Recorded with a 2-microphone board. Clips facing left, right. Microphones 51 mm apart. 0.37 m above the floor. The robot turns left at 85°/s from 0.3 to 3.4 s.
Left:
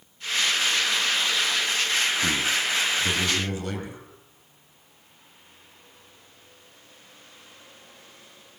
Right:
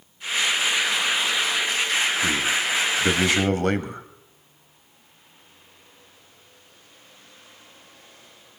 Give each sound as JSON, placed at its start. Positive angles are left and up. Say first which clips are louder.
{"t": 2.2, "sound": "a man speaking", "louder": "right 2 dB", "azimuth_deg": 10, "distance_m": 2.5}